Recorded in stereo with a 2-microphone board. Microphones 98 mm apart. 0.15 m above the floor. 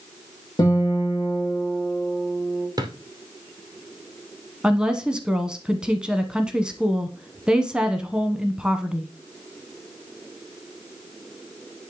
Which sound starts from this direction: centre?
A woman speaking, at 4.6 s.